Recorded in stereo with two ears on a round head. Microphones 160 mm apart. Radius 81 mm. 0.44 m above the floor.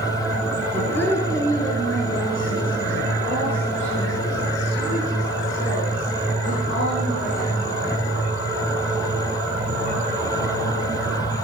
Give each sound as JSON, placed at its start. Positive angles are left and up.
{"t": 0.7, "sound": "a woman speaking", "side_deg": 10, "distance_m": 4.5}